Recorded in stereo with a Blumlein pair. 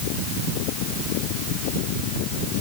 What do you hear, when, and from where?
Only background noise.